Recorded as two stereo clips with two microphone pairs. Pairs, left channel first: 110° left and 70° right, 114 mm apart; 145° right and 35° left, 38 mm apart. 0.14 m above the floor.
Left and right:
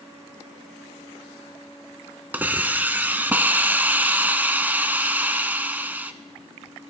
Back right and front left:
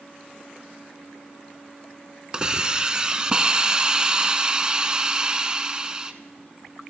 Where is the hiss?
10° right, 1.0 m.